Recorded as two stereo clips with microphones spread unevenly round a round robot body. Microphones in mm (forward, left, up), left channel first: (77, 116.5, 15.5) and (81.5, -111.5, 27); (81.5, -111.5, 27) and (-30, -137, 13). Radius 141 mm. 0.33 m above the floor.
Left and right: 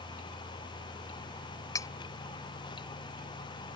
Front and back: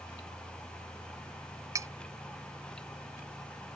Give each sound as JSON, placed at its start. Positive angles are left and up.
{"t": 1.8, "sound": "cutlery clinking", "azimuth_deg": 155}